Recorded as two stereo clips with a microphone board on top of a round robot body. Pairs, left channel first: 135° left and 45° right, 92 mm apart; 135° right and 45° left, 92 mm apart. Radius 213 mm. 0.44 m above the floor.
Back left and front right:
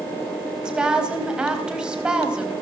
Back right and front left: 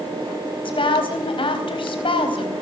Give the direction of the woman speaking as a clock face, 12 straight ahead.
4 o'clock.